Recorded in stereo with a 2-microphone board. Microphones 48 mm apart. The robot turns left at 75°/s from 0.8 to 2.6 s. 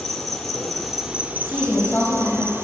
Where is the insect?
5° left, 0.7 m; by 2.6 s 130° right, 0.7 m.